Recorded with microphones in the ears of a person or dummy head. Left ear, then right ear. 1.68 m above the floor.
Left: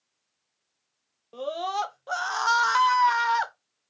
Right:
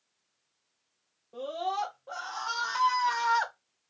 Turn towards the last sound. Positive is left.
turn(degrees=10)  # may be behind; listen again after turning